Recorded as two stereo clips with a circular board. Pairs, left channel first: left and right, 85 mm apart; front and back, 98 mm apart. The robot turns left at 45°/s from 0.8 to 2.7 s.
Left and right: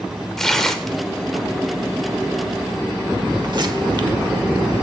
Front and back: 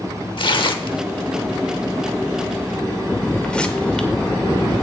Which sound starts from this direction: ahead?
Tearing paper, at 0.4 s.